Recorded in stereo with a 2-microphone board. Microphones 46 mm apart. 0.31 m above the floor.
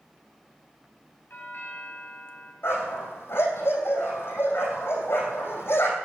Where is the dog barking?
60° left (ahead or behind), 3.5 m.